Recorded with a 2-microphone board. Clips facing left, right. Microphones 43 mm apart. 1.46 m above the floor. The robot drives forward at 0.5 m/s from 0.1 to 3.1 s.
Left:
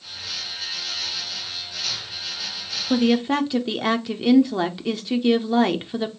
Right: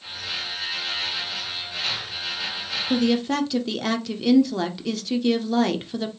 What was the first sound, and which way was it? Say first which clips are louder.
A woman speaking: left 2 dB; 20° left (ahead or behind).